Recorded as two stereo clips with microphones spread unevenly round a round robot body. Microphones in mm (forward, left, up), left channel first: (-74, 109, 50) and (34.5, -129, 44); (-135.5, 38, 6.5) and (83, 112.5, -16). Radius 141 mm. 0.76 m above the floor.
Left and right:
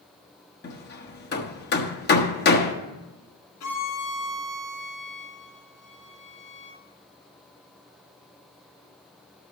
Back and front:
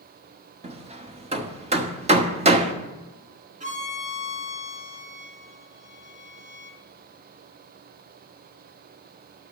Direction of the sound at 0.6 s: 70° left.